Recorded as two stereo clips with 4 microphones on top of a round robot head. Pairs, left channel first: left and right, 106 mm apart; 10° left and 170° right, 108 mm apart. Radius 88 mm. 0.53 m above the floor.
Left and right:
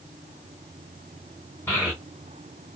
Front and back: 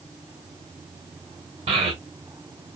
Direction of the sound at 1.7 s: 165° left.